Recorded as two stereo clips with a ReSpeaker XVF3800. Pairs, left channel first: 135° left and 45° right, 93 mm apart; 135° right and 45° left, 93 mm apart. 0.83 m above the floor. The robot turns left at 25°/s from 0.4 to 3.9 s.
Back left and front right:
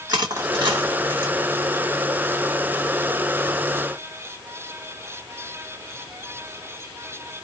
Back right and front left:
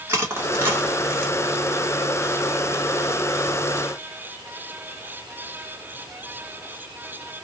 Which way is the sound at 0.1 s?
10° right.